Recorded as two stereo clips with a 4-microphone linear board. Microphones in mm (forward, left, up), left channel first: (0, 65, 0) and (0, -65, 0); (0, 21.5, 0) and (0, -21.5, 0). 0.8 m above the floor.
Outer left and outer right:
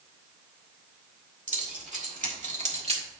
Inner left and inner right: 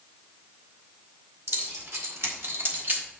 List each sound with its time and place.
1.5 s keys jangling: 65° right (ahead or behind), 2.5 m; by 3.0 s 45° right (ahead or behind), 1.5 m